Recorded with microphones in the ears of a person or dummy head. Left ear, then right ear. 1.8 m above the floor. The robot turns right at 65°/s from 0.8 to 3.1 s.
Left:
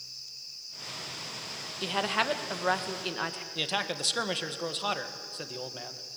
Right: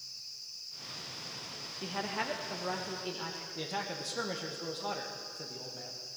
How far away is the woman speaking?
About 1.7 m.